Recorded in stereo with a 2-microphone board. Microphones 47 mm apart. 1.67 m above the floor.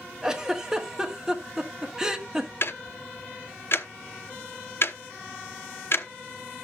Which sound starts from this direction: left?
Ticking, at 2.6 s.